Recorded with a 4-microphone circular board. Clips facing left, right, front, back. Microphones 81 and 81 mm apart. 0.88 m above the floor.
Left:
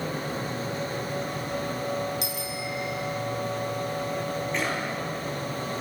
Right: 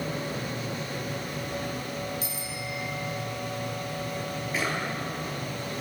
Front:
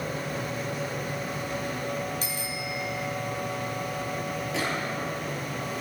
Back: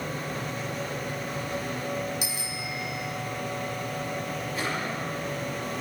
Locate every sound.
2.2 s a bicycle bell: 100° left, 4 m
4.5 s a drawer: 5° right, 8.5 m